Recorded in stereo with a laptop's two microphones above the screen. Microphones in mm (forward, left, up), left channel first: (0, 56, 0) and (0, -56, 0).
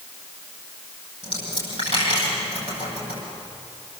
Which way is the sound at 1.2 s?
60° right (ahead or behind).